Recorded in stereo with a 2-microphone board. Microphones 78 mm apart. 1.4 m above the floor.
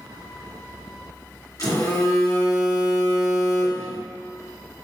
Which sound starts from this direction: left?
A phone buzzing, at 1.6 s.